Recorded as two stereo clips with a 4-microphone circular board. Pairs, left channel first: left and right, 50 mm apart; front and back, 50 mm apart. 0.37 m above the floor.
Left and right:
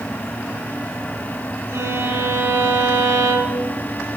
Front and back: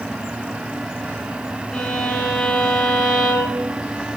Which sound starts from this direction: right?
A violin, at 1.7 s.